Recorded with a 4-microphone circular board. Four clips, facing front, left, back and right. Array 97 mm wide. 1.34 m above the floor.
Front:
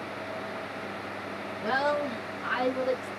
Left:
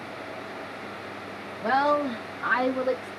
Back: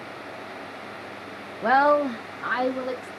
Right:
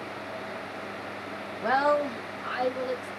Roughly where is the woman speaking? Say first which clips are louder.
Left 1 dB, back 9 dB; behind.